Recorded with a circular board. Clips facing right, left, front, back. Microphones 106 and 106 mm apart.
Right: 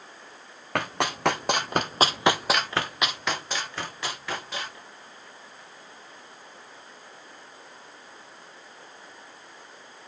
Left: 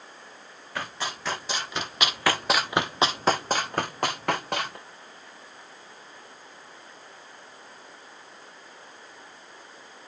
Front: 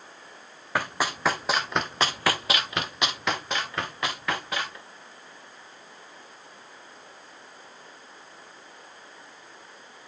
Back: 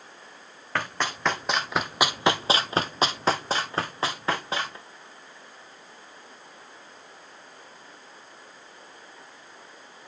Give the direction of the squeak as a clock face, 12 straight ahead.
No squeak in this recording.